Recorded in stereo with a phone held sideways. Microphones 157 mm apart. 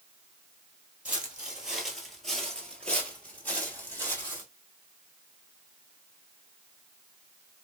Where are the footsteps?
5° right (ahead or behind), 1.4 m; by 4.5 s 15° left (ahead or behind), 1.8 m.